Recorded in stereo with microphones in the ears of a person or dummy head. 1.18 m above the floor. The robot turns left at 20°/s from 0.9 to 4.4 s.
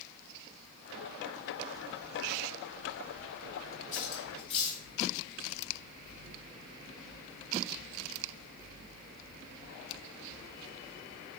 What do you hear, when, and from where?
3.9 s cutlery clinking: 40° left (ahead or behind), 1.9 m; by 4.8 s 30° left (ahead or behind), 1.9 m